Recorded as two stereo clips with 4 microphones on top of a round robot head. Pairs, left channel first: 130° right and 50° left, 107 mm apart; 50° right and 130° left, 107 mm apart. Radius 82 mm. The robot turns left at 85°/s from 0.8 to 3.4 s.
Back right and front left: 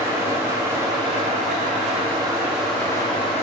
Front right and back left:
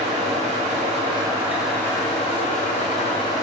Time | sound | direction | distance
0.0 | an engine running | 115° left | 2.5 m